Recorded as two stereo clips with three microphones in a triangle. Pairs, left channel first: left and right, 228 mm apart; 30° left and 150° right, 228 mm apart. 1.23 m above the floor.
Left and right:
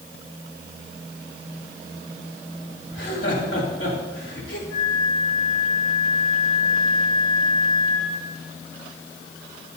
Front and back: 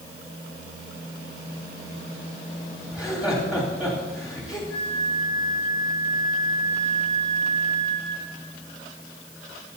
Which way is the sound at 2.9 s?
125° left.